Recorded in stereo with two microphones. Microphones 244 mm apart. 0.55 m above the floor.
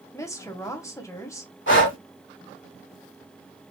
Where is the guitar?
I don't hear a guitar.